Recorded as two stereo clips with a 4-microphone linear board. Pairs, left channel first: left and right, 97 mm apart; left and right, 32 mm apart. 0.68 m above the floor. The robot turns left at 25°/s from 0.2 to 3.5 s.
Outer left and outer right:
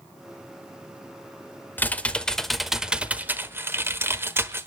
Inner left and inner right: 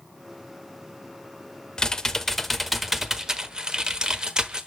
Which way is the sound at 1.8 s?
20° left.